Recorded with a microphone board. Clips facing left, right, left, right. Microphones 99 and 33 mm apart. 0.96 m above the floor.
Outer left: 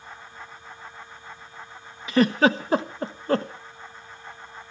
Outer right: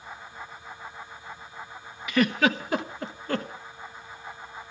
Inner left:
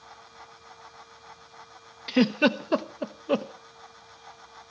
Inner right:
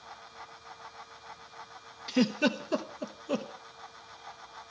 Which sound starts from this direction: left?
A giggle, at 2.1 s.